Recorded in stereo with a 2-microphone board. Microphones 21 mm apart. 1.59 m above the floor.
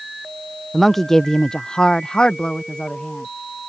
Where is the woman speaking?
Centre (ahead or behind); by 3.3 s 55° left (ahead or behind).